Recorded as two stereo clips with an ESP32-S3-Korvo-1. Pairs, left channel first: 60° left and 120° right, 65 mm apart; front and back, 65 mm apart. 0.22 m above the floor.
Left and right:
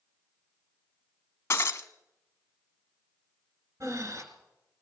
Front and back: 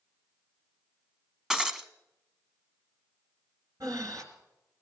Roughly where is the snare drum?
No snare drum in this recording.